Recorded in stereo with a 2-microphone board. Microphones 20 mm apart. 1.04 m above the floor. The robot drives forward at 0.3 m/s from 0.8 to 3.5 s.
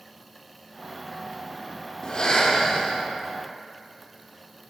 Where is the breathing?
40° left (ahead or behind), 0.7 m.